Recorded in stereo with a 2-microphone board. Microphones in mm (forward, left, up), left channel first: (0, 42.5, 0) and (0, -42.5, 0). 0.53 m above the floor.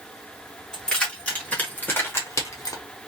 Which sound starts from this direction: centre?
Keys jangling, at 0.7 s.